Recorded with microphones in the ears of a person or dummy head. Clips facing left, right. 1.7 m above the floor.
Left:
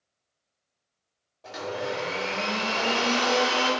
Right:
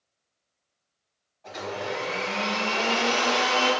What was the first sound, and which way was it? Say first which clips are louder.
A blender: left 1 dB; 55° left (ahead or behind).